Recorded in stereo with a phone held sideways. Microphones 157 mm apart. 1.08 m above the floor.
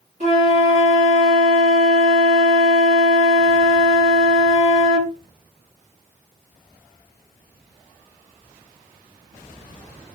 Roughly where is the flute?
Right.